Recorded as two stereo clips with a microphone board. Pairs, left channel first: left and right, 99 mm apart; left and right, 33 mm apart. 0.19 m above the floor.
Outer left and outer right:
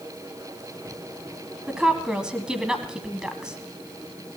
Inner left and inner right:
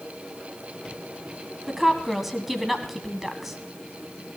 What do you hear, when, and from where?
1.7 s a woman speaking: 10° right (ahead or behind), 1.2 m